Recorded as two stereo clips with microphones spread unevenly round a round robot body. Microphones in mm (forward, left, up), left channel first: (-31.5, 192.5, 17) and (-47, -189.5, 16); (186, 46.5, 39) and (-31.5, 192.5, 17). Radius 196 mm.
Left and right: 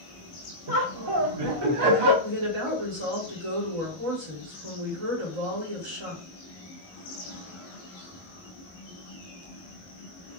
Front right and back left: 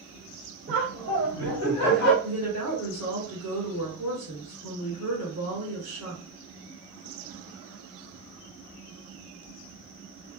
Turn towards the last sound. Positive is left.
turn(degrees=-80)